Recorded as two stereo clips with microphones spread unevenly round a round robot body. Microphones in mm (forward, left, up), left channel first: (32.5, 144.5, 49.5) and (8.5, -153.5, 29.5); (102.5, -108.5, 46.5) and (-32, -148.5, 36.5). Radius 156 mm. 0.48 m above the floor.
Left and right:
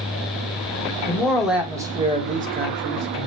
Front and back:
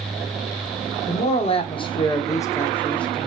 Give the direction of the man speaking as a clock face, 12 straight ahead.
12 o'clock.